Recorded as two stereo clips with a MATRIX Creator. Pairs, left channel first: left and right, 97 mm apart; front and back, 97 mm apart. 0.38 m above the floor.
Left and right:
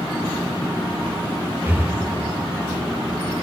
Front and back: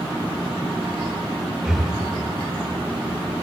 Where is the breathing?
100° right, 1.1 m.